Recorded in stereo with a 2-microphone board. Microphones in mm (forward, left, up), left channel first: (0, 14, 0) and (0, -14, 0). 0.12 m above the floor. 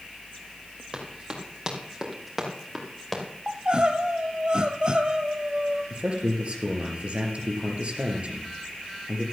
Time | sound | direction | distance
0.9 | running footsteps | 35° right (ahead or behind) | 4.5 m
3.5 | crying | 35° right (ahead or behind) | 1.0 m
5.9 | a man speaking | 45° right (ahead or behind) | 3 m